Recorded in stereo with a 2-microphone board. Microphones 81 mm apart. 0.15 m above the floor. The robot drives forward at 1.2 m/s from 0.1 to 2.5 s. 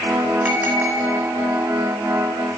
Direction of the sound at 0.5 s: 20° right (ahead or behind).